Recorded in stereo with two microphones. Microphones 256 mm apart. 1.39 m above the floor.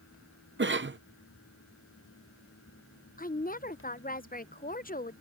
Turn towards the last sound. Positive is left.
turn(degrees=35)  # may be behind; listen again after turning